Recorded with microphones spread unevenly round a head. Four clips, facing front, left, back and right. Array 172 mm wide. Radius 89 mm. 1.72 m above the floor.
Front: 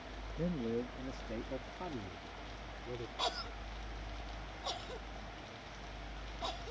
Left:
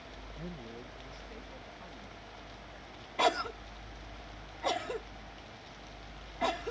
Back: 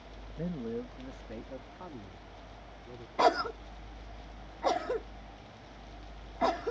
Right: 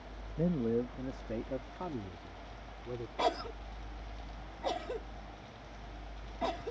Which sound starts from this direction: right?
A man speaking, at 0.4 s.